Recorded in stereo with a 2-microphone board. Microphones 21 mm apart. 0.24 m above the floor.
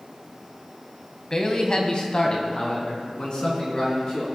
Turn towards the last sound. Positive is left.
turn(degrees=45)  # may be behind; listen again after turning